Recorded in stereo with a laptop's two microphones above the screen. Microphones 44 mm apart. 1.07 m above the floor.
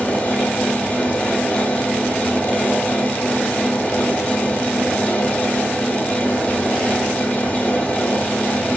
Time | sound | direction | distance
0.0 | a fan | 30° left (ahead or behind) | 0.8 m